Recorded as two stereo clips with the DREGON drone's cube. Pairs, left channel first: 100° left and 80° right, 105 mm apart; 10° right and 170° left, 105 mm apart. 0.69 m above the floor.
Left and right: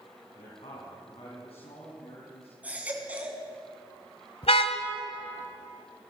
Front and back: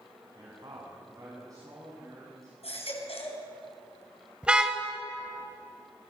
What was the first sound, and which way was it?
A man speaking, 125° left.